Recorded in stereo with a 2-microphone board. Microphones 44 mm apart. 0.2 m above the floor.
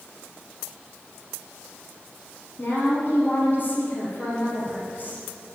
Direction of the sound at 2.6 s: 40° left (ahead or behind).